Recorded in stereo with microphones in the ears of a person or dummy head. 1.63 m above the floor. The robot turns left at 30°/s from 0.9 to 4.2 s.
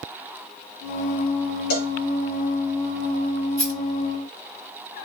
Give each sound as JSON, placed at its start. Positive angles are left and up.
{"t": 1.7, "sound": "a cowbell", "side_deg": 55, "distance_m": 1.3}
{"t": 3.6, "sound": "a rattle", "side_deg": -50, "distance_m": 2.5}